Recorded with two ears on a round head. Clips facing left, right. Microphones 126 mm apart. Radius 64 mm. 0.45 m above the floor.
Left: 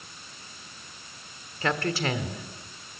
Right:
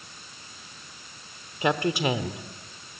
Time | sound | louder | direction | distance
1.6 | a woman speaking | right 3 dB | 15° right (ahead or behind) | 0.9 m